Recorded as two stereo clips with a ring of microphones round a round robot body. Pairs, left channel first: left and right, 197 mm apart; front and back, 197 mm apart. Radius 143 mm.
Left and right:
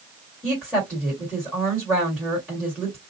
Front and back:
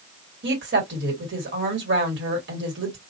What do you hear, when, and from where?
0.4 s a woman speaking: 175° left, 1.9 m